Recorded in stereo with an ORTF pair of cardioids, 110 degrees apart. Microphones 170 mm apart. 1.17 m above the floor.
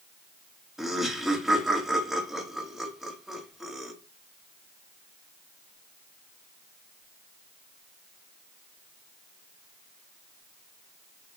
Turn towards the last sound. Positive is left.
turn(degrees=0)